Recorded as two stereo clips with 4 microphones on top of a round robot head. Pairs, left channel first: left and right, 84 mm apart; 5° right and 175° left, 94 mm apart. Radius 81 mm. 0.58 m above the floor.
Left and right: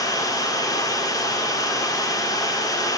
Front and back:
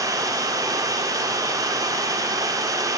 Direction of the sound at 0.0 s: 130° left.